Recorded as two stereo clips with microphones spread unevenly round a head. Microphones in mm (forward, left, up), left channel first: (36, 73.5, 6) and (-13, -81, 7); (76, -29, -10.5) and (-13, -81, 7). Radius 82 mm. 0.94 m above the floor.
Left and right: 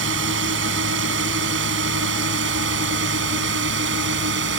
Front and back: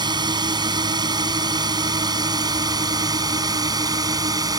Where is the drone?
105° right; by 4.6 s 100° right.